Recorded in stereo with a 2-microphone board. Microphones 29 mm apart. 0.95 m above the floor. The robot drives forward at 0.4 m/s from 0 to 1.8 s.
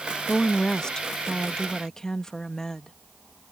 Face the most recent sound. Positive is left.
turn(degrees=20)  # may be behind; listen again after turning